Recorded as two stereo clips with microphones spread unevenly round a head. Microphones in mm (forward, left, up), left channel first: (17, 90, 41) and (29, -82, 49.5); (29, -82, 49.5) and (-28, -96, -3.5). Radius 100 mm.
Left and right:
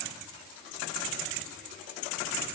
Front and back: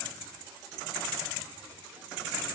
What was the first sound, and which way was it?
Only background noise.